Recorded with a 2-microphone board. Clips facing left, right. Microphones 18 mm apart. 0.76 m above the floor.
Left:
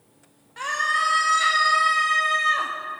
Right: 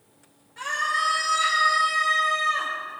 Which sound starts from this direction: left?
A scream, at 0.6 s.